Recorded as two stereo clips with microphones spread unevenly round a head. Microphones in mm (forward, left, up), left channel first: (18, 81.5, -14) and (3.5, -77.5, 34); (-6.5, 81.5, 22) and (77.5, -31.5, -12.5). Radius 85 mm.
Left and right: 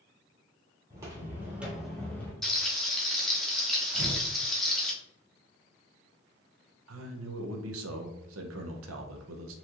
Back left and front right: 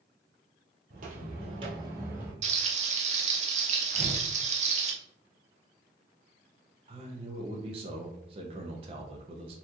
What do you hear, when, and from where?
0.9 s footsteps: 65° right, 1.6 m; by 2.3 s 165° right, 1.3 m
2.4 s frying: 25° right, 0.8 m
3.9 s tearing paper: 90° right, 1.0 m
6.9 s a man speaking: 110° right, 0.7 m